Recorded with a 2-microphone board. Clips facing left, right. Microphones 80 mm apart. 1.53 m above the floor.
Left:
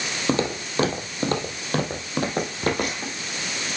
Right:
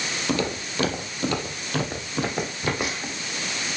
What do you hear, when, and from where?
0.3 s footsteps: 25° left (ahead or behind), 2 m; by 3.1 s 55° left (ahead or behind), 3.5 m